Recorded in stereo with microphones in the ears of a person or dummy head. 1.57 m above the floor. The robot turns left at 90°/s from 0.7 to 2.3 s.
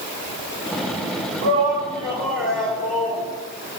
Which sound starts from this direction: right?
A shout, at 1.4 s.